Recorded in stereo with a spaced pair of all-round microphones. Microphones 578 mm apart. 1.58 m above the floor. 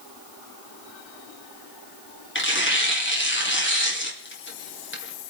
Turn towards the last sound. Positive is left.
turn(degrees=20)  # may be behind; listen again after turning